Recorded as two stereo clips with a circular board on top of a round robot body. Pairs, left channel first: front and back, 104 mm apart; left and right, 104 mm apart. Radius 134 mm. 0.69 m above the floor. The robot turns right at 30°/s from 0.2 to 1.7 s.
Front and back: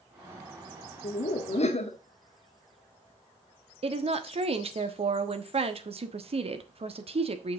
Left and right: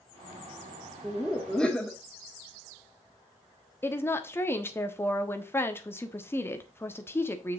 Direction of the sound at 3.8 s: 160° left.